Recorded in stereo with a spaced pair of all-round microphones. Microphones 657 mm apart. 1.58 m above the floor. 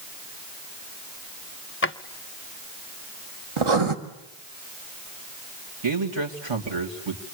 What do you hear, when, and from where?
1.8 s a drawer: 20° left (ahead or behind), 0.7 m
3.6 s writing: 45° right (ahead or behind), 1.9 m
5.8 s a man speaking: 40° right (ahead or behind), 3 m